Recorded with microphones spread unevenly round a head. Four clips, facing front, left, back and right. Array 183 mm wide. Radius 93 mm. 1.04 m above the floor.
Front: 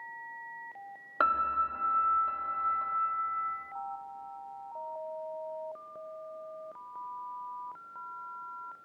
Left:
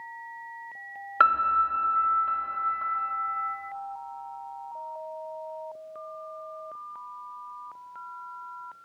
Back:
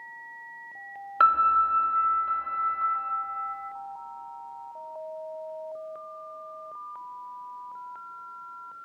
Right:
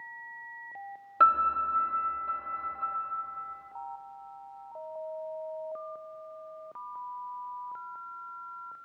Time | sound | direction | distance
1.2 | a piano | 30° left | 1.1 m